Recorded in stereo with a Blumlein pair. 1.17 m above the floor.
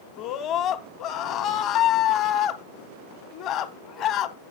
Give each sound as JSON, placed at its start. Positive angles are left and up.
{"t": 0.2, "sound": "a scream", "azimuth_deg": 35, "distance_m": 1.4}